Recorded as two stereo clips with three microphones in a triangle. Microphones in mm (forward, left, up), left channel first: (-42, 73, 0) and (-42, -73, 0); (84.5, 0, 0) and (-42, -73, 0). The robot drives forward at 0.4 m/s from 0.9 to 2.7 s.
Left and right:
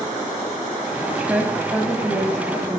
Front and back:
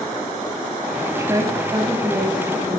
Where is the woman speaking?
150° right, 0.9 m; by 2.8 s 170° right, 1.3 m.